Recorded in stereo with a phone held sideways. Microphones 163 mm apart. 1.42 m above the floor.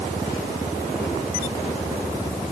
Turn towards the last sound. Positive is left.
No sound to turn to.